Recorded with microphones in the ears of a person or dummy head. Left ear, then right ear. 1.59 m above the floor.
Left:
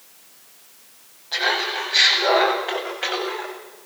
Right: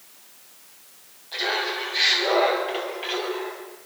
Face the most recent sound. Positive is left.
turn(degrees=55)  # may be behind; listen again after turning